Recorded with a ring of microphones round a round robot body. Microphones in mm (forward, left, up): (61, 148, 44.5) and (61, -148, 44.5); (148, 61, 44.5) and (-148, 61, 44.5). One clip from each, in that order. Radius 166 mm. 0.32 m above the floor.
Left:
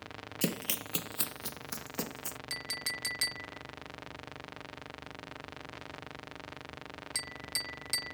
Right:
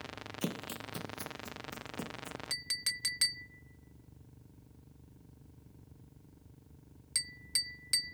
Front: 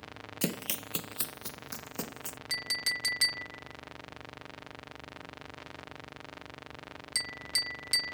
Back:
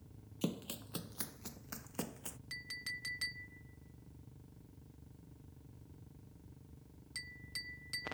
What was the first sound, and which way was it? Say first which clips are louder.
Running footsteps: left 6 dB, front 7 dB; 35° left.